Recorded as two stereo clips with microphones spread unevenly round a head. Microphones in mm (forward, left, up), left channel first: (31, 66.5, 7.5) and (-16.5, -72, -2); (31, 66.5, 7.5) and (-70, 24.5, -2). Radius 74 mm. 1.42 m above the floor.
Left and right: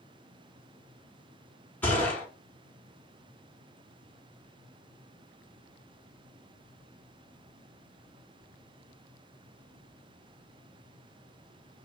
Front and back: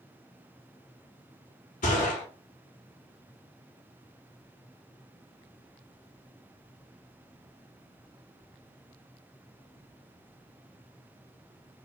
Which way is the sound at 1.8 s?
5° right.